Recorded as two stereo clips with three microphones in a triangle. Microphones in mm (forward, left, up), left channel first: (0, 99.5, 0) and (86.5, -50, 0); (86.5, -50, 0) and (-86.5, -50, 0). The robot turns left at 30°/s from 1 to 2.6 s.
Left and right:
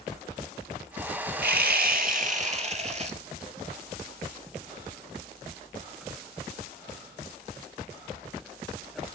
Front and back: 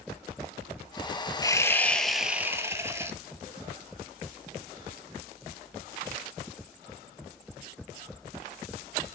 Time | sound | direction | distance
1.4 | sawing | 70° right | 0.7 m